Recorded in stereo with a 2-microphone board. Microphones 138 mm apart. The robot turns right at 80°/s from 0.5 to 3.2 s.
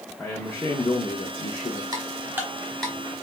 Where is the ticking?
25° right (ahead or behind), 1.0 m; by 2.9 s 5° left (ahead or behind), 1.0 m.